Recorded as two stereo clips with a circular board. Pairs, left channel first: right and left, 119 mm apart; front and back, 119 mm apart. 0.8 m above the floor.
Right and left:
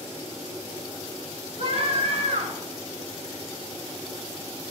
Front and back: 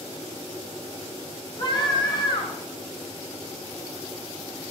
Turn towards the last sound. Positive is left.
turn(degrees=50)